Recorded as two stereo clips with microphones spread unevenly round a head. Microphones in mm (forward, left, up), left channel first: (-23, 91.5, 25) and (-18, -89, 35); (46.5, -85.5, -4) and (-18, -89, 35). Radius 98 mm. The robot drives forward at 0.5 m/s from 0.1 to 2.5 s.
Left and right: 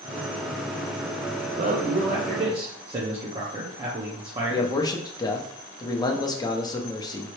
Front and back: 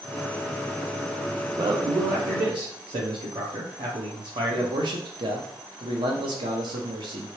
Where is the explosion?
I don't hear an explosion.